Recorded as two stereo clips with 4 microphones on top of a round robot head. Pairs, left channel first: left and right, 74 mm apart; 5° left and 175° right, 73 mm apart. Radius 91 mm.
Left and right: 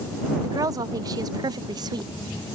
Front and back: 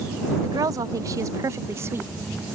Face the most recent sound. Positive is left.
turn(degrees=-115)